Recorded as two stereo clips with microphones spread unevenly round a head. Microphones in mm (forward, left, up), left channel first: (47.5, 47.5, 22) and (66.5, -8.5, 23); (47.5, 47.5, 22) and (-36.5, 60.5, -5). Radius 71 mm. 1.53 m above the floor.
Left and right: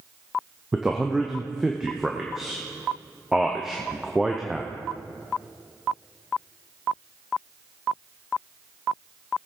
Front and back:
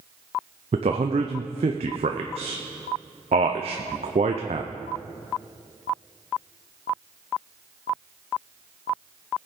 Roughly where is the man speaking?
Behind right.